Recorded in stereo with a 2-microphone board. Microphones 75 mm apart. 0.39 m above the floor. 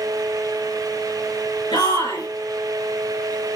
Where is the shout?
80° left, 5.5 m.